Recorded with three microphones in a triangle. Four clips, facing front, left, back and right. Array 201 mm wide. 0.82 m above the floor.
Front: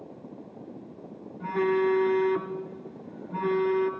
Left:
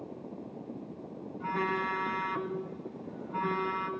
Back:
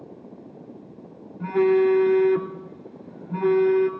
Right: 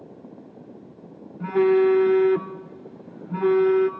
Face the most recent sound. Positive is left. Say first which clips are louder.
# right 14 dB, back 6 dB
turn(degrees=-125)